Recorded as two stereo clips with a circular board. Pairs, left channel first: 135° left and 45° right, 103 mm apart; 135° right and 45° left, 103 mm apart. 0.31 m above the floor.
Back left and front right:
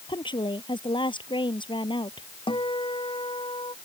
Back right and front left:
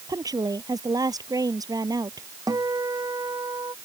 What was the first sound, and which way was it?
A woman speaking, 95° left.